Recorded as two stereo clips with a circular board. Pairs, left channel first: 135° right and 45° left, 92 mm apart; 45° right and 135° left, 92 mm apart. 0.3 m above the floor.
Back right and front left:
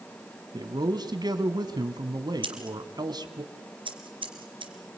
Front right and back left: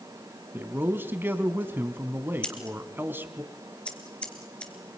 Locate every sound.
0.5 s a man speaking: 70° left, 2 m
2.4 s scissors: 35° left, 3 m